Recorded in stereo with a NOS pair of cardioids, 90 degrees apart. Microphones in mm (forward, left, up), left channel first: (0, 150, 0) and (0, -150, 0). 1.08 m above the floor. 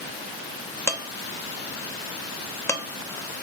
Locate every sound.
0.9 s dishes clattering: 10° left, 0.8 m